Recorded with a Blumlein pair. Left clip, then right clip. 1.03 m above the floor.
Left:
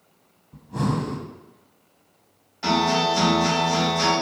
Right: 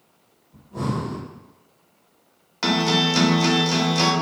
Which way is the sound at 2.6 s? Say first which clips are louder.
Even; 50° right.